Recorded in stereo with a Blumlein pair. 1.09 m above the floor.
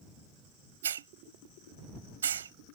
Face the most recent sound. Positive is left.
turn(degrees=-65)